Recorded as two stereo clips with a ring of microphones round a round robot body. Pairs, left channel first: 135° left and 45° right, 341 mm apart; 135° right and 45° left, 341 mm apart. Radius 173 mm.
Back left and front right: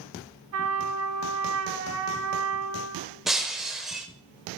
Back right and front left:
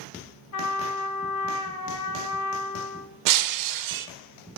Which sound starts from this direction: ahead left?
Breaking glass, at 3.3 s.